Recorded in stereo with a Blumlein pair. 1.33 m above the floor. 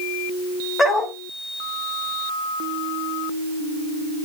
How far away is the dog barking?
About 3 m.